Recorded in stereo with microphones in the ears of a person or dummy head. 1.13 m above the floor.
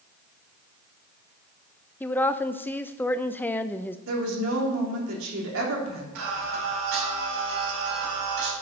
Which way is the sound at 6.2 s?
80° right.